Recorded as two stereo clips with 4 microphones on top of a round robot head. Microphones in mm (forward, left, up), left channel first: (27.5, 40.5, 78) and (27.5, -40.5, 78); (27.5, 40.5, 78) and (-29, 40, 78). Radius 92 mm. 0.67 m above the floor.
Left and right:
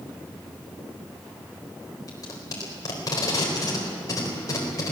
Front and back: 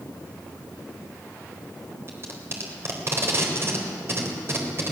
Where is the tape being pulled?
140° left, 4 m.